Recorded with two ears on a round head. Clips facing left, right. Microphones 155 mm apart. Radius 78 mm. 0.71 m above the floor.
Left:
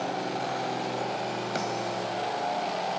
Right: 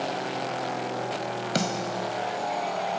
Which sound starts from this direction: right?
A snare drum, at 1.6 s.